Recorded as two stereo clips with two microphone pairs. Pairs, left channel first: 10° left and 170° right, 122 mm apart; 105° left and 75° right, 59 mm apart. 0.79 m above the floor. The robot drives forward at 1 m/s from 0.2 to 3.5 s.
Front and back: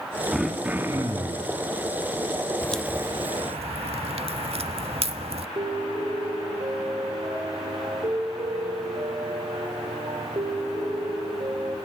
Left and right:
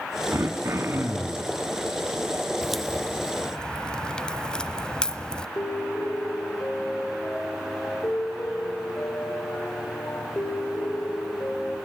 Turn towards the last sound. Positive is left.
turn(degrees=145)